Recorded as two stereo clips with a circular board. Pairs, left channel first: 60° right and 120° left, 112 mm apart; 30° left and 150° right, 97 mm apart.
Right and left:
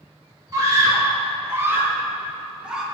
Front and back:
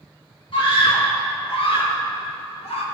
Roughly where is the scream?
Ahead left.